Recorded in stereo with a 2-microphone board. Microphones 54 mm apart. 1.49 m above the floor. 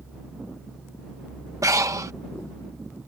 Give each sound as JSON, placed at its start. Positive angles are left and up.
{"t": 1.6, "sound": "breathing", "side_deg": -80}